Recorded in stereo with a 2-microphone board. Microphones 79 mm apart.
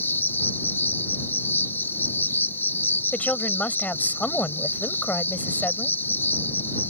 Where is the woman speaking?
20° left (ahead or behind).